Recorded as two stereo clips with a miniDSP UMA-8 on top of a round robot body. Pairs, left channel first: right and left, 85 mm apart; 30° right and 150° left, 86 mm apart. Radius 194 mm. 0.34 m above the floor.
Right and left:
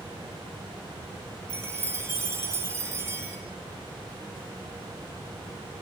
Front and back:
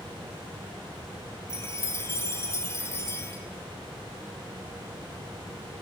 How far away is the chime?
About 3.5 m.